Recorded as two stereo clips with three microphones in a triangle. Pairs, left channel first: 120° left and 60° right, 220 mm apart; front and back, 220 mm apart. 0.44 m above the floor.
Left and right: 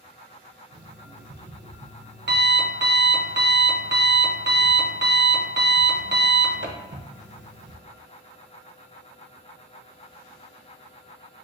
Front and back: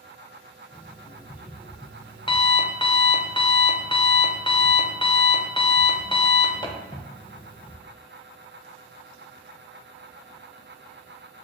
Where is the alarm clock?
65° right, 0.5 m.